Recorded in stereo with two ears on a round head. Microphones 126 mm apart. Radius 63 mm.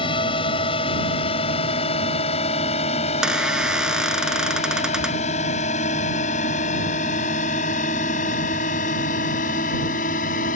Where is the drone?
35° left (ahead or behind); by 10.6 s 60° left (ahead or behind).